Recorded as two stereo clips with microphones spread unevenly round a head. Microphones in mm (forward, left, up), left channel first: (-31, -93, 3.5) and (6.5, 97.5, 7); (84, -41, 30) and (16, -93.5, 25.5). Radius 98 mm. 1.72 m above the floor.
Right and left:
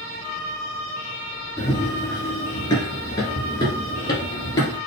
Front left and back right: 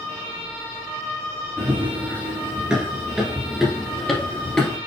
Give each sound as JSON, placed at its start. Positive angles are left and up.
{"t": 1.6, "sound": "running footsteps", "azimuth_deg": -140, "distance_m": 1.7}